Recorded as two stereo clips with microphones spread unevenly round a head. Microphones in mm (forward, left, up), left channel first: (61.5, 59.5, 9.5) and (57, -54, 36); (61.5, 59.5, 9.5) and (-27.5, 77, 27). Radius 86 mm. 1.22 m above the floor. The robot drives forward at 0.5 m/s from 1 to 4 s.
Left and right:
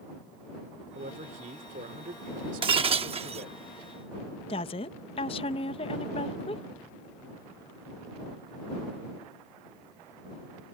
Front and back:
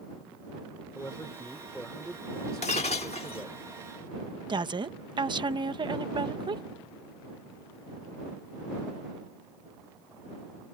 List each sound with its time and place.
0.9 s a man speaking: 90° right; by 3.6 s 105° right
2.6 s breaking glass: 60° right; by 3.5 s 75° right
4.5 s a woman speaking: 130° left